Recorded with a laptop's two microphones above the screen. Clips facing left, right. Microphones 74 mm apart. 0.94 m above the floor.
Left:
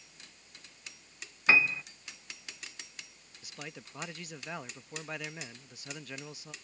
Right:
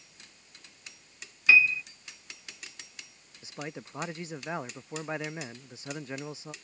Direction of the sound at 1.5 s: 40° left (ahead or behind).